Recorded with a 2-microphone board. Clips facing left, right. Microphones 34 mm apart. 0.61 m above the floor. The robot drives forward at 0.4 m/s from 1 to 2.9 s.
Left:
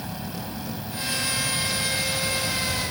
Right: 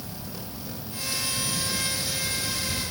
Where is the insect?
50° left (ahead or behind), 2.0 m; by 2.9 s 75° left (ahead or behind), 1.6 m.